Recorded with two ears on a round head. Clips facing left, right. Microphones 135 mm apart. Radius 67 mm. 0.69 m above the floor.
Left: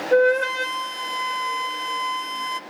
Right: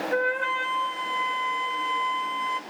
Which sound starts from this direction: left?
A flute, at 0.1 s.